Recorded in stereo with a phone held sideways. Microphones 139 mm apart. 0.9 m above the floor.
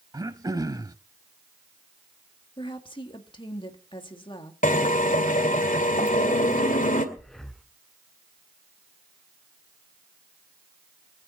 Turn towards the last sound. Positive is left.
turn(degrees=5)  # may be behind; listen again after turning